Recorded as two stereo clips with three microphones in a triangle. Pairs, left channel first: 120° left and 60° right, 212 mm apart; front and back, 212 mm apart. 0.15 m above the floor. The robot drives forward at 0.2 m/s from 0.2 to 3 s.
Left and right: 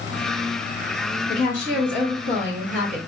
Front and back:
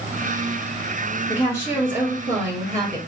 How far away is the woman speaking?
About 1.8 m.